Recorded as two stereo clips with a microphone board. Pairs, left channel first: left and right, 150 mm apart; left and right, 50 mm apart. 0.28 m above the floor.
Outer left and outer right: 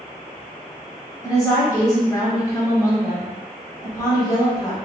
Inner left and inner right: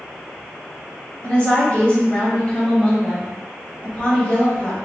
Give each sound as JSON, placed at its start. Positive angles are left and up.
{"t": 1.2, "sound": "a woman speaking", "side_deg": 25, "distance_m": 1.1}